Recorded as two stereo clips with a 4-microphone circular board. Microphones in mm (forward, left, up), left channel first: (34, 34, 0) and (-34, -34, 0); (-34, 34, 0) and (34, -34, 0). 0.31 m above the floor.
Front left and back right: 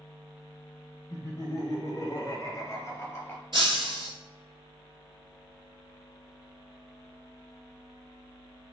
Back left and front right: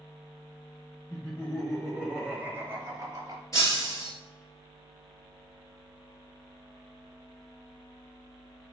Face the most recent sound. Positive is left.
turn(degrees=-170)